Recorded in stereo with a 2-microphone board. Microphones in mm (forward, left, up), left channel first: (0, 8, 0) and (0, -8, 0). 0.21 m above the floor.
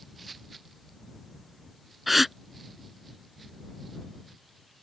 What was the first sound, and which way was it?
A gasp, 10° right (ahead or behind).